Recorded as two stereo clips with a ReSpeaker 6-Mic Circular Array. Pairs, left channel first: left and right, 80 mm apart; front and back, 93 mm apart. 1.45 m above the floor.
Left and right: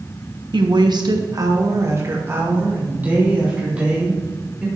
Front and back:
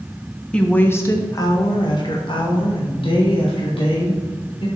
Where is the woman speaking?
80° right, 1.4 m; by 4.7 s 10° right, 4.5 m.